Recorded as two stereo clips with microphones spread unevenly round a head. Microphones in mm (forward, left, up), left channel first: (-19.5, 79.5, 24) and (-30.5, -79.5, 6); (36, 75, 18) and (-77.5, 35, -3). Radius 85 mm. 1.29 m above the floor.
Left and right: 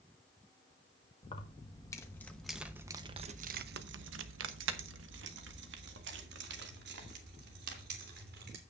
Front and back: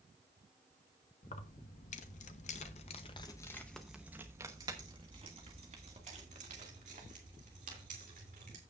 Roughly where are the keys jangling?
Ahead left.